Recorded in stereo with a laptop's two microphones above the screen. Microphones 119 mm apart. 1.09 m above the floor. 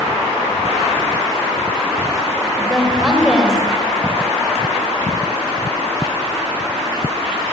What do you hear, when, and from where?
2.6 s a woman speaking: 5° right (ahead or behind), 5.5 m